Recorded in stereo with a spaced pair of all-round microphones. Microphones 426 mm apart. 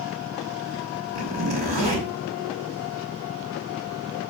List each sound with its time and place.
1.1 s a zipper: 75° right (ahead or behind), 4.5 m